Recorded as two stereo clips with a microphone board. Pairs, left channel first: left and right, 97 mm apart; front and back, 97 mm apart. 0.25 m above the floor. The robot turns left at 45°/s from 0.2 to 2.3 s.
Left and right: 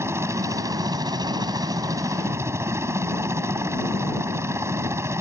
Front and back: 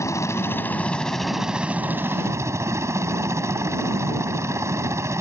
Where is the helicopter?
40° right; by 5.2 s 135° right.